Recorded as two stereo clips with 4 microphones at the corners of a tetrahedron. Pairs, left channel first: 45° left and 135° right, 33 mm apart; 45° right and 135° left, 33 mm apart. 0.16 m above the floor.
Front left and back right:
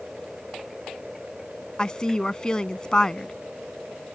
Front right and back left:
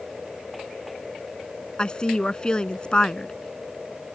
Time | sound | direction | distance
1.8 | a woman speaking | 5° right | ?